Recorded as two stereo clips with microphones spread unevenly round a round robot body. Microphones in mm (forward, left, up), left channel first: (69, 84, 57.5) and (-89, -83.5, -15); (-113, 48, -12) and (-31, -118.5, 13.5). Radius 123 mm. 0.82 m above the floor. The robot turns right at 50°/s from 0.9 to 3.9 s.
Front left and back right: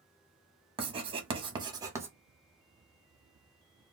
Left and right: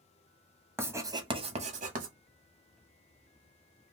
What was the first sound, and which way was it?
Writing, 145° right.